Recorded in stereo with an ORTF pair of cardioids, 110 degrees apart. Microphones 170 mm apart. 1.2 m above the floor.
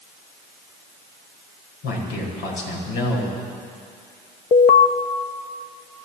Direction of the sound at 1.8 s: 70° left.